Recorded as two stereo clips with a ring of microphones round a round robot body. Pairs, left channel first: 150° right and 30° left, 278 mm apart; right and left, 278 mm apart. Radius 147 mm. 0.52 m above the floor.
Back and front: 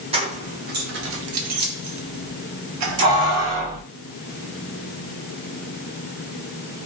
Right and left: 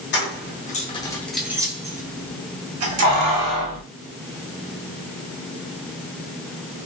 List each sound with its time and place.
0.1 s keys jangling: 40° right, 1.0 m; by 3.8 s 75° left, 1.3 m